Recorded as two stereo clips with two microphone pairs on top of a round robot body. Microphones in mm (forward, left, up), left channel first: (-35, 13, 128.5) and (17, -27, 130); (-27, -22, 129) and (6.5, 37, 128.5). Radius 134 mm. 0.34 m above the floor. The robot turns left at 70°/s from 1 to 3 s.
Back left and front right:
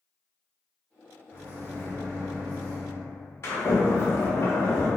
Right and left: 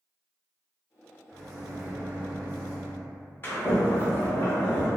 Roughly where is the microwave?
Behind left.